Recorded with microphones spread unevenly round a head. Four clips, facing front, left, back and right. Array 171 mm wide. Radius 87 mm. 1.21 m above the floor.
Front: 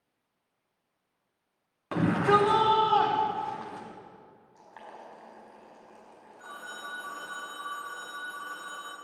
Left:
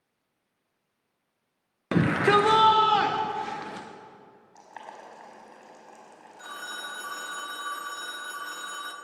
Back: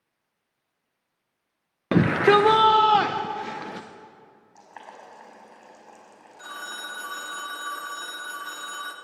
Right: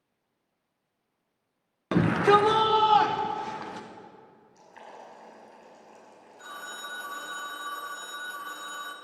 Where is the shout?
175° left, 0.7 m.